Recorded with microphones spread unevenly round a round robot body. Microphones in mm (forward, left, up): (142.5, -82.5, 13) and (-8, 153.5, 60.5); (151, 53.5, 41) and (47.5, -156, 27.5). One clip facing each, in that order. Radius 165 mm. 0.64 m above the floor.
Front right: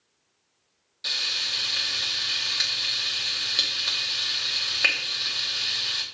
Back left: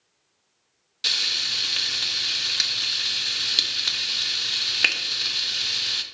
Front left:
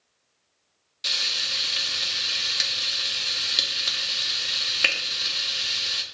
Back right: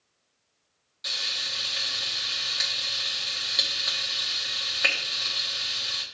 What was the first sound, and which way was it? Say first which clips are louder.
Frying: back left 2 dB, front left 2 dB; 100° left.